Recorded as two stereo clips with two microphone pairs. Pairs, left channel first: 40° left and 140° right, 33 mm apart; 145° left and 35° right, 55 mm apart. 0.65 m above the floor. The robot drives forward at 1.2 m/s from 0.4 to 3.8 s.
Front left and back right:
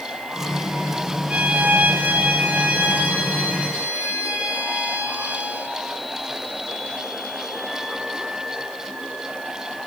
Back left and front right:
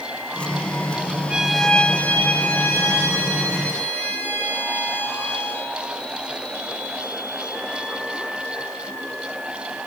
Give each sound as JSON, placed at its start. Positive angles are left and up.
{"t": 1.3, "sound": "a violin", "azimuth_deg": -105, "distance_m": 0.5}